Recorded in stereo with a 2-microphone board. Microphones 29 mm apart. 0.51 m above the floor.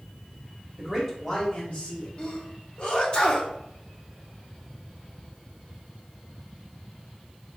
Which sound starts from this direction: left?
A sneeze, at 2.2 s.